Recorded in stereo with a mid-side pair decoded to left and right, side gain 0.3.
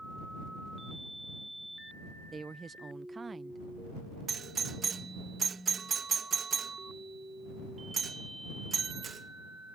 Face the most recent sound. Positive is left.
turn(degrees=-60)